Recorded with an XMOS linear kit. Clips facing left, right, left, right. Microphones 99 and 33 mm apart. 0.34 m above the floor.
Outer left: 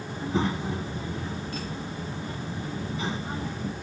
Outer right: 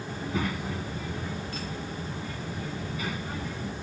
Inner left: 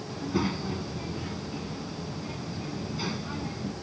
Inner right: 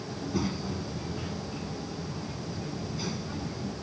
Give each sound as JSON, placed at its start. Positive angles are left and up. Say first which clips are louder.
{"t": 0.1, "sound": "a child speaking", "louder": "outer left 4 dB, inner left 3 dB", "side_deg": 25}